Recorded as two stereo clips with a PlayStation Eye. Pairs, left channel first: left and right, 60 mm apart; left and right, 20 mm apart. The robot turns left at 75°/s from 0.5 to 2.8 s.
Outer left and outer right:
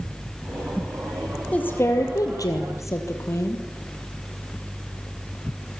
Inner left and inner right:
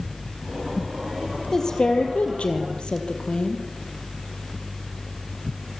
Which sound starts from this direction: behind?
A woman speaking, at 1.5 s.